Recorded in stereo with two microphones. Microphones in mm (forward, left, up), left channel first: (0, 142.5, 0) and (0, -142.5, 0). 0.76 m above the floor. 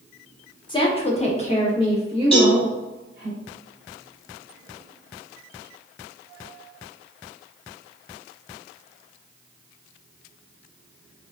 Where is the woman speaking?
20° left (ahead or behind), 0.6 m.